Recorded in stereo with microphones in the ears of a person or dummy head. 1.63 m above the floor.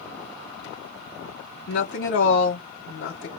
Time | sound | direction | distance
1.7 | a woman speaking | 45° left (ahead or behind) | 1.0 m